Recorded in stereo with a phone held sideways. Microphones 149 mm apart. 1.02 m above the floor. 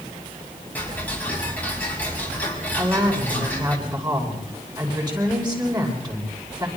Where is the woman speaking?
30° right (ahead or behind), 9.5 m.